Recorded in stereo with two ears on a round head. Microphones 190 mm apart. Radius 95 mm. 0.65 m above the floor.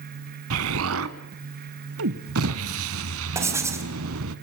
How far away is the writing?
About 3 m.